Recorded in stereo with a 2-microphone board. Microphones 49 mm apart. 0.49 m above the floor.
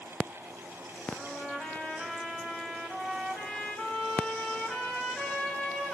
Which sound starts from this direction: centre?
A trumpet, at 1.1 s.